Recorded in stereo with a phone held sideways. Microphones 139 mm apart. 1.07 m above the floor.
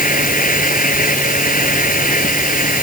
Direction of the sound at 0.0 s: 90° left.